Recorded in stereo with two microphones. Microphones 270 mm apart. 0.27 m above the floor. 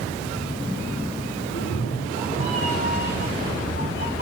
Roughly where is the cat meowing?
Left.